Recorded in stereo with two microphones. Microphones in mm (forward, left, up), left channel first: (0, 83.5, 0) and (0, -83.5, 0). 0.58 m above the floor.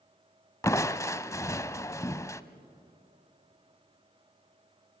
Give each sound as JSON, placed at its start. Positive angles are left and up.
{"t": 0.6, "sound": "crushing", "side_deg": 20, "distance_m": 0.7}